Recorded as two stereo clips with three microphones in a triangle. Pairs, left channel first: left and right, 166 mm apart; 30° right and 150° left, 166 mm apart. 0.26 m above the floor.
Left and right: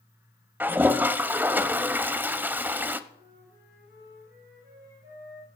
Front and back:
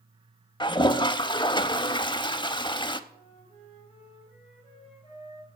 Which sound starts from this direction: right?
A flute, at 3.1 s.